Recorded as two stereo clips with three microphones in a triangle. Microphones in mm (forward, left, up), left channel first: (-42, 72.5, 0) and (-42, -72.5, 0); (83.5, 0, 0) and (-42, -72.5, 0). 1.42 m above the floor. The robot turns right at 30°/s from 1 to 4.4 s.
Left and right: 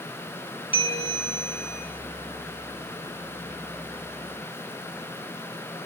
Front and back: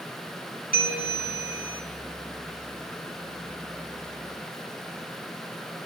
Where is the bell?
40° left, 5 m; by 1.8 s 60° left, 5 m.